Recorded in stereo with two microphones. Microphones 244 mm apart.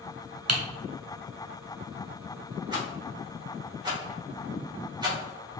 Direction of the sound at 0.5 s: 80° right.